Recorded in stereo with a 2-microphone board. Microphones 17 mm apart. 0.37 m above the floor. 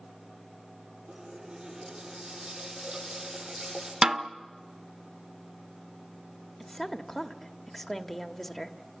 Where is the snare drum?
45° right (ahead or behind), 0.6 m.